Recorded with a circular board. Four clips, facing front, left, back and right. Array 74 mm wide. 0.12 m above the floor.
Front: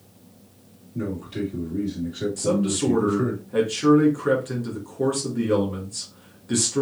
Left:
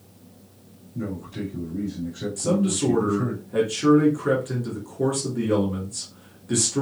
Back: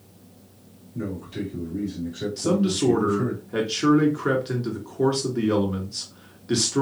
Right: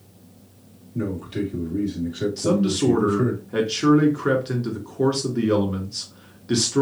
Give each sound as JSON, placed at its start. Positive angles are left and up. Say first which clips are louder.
{"t": 0.9, "sound": "a man speaking", "louder": "right 5 dB, front 2 dB", "azimuth_deg": -70, "distance_m": 3.5}
{"t": 2.4, "sound": "a man speaking", "louder": "right 1 dB, back 2 dB", "azimuth_deg": -125, "distance_m": 1.7}